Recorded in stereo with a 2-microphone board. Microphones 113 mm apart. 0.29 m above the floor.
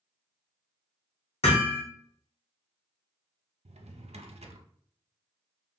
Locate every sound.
1.4 s hammering: 60° left (ahead or behind), 1.6 m
3.6 s a drawer: 70° right (ahead or behind), 0.5 m